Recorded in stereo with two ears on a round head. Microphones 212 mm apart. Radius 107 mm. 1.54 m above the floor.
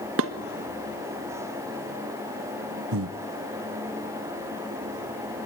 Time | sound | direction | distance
0.2 | dishes clattering | 65° right (ahead or behind) | 1.4 m
2.9 | breathing | 60° right (ahead or behind) | 0.6 m